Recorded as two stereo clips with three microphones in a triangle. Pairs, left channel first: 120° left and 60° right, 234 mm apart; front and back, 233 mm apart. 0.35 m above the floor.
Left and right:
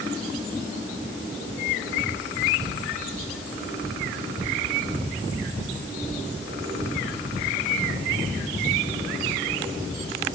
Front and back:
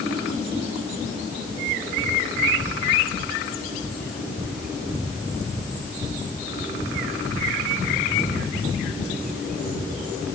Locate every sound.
Only background noise.